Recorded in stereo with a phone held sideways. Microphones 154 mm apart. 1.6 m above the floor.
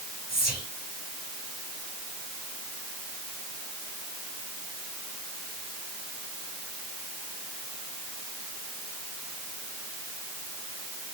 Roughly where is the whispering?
Left.